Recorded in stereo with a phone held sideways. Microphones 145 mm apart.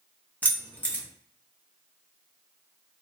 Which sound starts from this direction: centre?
Keys jangling, at 0.4 s.